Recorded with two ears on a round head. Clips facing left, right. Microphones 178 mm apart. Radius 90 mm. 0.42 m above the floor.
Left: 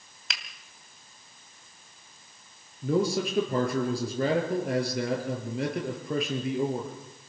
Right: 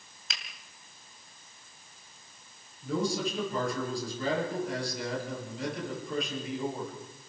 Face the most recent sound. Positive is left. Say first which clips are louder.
# left 5 dB
turn(degrees=50)  # may be behind; listen again after turning